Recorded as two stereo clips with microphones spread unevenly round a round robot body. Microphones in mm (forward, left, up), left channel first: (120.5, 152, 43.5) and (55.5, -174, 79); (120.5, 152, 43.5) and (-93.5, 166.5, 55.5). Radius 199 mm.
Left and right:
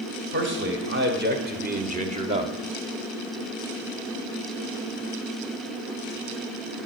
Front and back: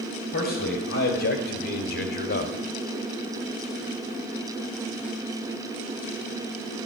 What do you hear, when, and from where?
0.3 s a man speaking: 45° right, 4 m; by 2.5 s 20° right, 1.6 m